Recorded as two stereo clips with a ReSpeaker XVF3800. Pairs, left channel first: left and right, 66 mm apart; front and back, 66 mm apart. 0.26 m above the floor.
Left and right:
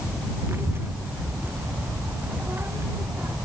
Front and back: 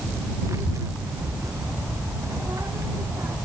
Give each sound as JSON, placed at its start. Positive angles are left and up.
{"t": 0.5, "sound": "a child speaking", "azimuth_deg": -140}